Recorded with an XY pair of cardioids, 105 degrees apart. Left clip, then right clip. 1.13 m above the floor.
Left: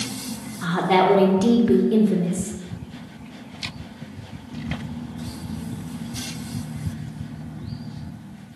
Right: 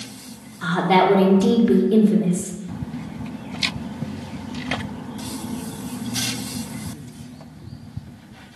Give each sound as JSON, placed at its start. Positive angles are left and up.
{"t": 0.6, "sound": "a woman speaking", "azimuth_deg": 0, "distance_m": 0.7}